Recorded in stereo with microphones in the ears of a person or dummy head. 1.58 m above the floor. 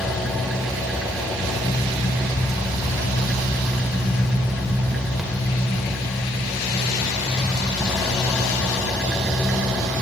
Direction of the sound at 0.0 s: Centre (ahead or behind).